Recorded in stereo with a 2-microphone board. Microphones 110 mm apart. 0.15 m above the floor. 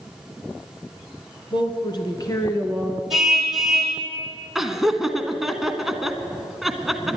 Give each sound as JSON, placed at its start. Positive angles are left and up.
{"t": 1.5, "sound": "a woman speaking", "side_deg": 50, "distance_m": 1.9}
{"t": 3.1, "sound": "a car horn", "side_deg": 0, "distance_m": 4.0}
{"t": 4.5, "sound": "laughter", "side_deg": -5, "distance_m": 1.1}